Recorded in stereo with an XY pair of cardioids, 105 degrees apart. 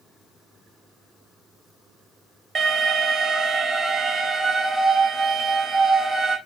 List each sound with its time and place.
2.5 s an alarm: 35° right, 5.5 m